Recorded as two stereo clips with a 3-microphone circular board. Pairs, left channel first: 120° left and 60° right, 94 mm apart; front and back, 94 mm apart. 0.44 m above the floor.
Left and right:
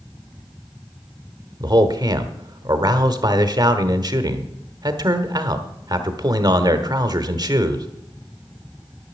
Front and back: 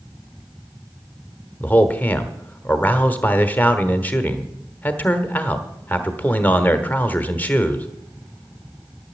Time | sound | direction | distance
1.6 | a man speaking | 65° right | 1.3 m